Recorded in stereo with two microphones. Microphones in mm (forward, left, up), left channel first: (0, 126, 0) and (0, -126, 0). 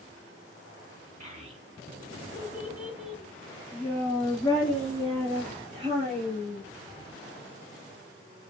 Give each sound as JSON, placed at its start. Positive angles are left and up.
{"t": 1.2, "sound": "a child speaking", "side_deg": -30, "distance_m": 1.1}